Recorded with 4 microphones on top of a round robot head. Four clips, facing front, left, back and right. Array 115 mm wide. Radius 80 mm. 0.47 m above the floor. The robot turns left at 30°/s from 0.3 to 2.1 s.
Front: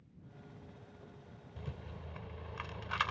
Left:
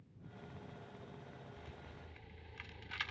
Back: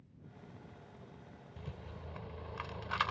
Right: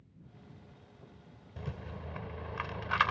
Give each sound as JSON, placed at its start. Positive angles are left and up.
{"t": 1.6, "sound": "a rattle", "azimuth_deg": -90}